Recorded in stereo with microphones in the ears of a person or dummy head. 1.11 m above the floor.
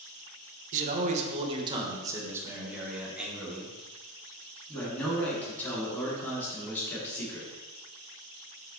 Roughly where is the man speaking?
Right.